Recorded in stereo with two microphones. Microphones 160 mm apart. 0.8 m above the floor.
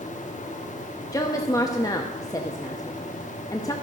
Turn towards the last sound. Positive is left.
turn(degrees=20)  # may be behind; listen again after turning